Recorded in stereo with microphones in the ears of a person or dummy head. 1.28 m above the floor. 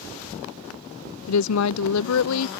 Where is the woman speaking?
75° left (ahead or behind).